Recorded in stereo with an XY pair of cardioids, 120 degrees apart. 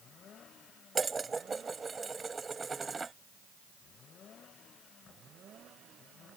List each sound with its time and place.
0.9 s dishes clattering: 20° right